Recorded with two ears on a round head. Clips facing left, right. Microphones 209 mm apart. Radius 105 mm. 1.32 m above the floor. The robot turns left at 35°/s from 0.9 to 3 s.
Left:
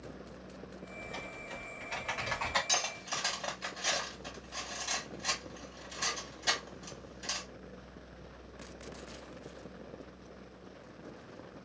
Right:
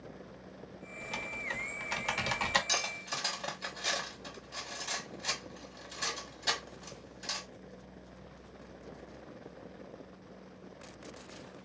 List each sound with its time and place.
1.0 s typing on a keyboard: 75° right (ahead or behind), 1.0 m; by 2.6 s 40° right (ahead or behind), 1.0 m
2.7 s cutlery clinking: 10° right (ahead or behind), 1.6 m; by 7.5 s centre (ahead or behind), 1.6 m